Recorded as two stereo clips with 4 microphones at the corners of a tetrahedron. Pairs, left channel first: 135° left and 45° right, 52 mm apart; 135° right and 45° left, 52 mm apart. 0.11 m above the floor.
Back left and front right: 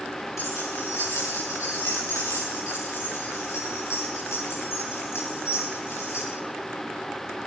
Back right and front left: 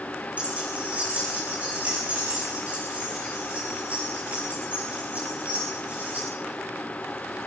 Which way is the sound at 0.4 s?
110° left.